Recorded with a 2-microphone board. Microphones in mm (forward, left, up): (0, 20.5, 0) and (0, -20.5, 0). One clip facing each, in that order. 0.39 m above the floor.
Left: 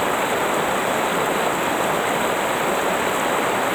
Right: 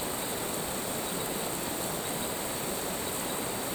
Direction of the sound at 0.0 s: 60° left (ahead or behind).